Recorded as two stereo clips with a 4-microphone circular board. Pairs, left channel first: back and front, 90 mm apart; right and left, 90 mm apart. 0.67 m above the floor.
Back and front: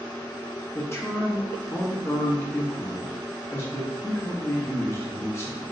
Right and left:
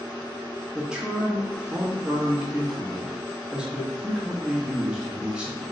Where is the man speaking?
160° left, 0.7 m.